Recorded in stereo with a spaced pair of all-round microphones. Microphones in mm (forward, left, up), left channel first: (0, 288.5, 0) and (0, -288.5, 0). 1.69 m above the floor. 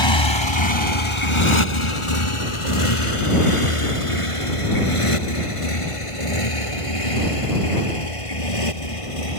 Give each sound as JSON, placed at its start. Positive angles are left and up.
{"t": 0.0, "sound": "a motorcycle", "side_deg": 55}